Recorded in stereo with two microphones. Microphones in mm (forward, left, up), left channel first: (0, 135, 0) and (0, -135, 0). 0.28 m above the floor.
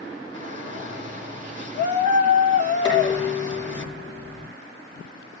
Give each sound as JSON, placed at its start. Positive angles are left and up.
{"t": 0.3, "sound": "a shout", "side_deg": -25, "distance_m": 4.5}
{"t": 2.9, "sound": "dishes clattering", "side_deg": -45, "distance_m": 5.0}